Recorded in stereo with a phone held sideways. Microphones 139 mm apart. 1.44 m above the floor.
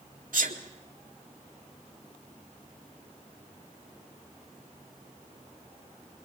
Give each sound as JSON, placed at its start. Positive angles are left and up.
{"t": 0.3, "sound": "a sneeze", "side_deg": -80, "distance_m": 2.0}